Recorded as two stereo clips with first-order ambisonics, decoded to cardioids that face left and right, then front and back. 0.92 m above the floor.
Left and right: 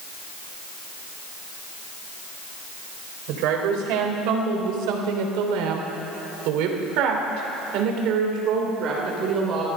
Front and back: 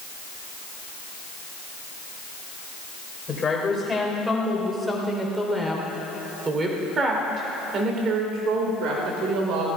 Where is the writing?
I don't hear writing.